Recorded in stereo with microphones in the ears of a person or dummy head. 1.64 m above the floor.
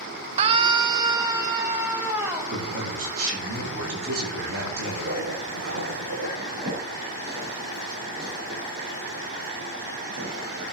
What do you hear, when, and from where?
0.4 s a scream: 30° right (ahead or behind), 0.6 m; by 2.6 s 15° right (ahead or behind), 2.5 m
2.5 s a man speaking: 85° right, 8 m
4.8 s writing: 80° right, 6.5 m
6.4 s a zipper: 55° right (ahead or behind), 6.5 m